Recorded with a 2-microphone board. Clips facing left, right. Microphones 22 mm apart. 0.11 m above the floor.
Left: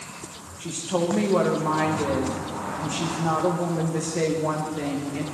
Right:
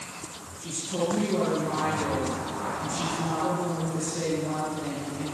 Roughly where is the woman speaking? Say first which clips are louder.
Left 4 dB; left.